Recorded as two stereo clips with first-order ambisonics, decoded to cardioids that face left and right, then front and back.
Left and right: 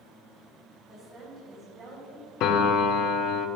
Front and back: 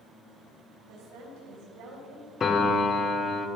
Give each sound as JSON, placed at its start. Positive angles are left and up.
{"t": 0.9, "sound": "a woman speaking", "azimuth_deg": -170, "distance_m": 3.0}
{"t": 2.4, "sound": "a piano", "azimuth_deg": 65, "distance_m": 0.7}